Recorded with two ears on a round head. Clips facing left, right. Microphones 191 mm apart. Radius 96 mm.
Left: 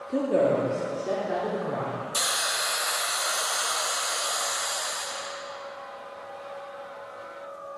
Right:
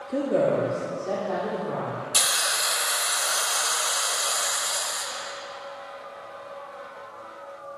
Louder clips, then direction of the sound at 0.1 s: Even; 5° right (ahead or behind).